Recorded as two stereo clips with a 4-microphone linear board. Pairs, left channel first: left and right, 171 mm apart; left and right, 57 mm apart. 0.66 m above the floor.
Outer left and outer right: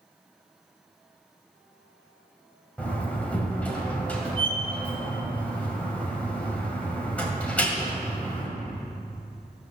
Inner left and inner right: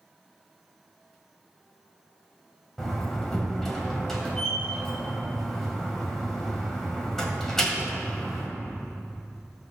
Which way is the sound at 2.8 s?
10° left (ahead or behind).